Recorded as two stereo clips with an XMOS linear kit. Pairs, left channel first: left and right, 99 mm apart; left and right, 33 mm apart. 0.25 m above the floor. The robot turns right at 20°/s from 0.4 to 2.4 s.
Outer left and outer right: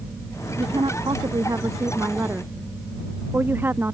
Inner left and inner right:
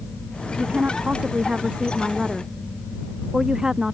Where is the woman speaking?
55° right; by 3.9 s 20° right.